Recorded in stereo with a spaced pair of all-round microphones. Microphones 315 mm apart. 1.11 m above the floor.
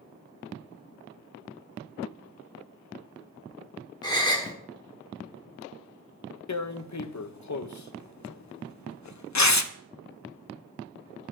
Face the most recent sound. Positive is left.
turn(degrees=60)  # may be behind; listen again after turning